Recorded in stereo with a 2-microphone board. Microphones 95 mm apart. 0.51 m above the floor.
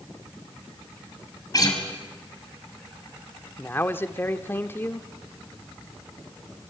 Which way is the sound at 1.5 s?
40° left (ahead or behind).